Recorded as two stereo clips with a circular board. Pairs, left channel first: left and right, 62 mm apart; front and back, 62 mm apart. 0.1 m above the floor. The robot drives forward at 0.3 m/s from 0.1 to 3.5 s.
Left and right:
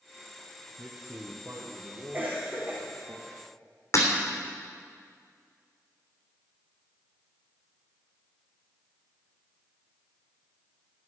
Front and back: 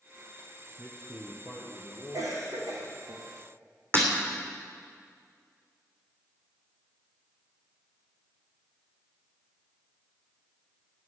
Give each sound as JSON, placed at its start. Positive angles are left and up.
{"t": 0.8, "sound": "a man speaking", "azimuth_deg": -130, "distance_m": 2.0}
{"t": 2.1, "sound": "a cough", "azimuth_deg": -150, "distance_m": 4.5}
{"t": 3.9, "sound": "breaking glass", "azimuth_deg": 130, "distance_m": 3.0}